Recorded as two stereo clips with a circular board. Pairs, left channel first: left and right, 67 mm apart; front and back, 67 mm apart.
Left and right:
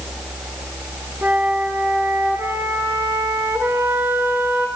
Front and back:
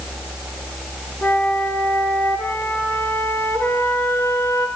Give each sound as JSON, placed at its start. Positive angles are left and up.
{"t": 1.2, "sound": "a flute", "azimuth_deg": -45, "distance_m": 1.6}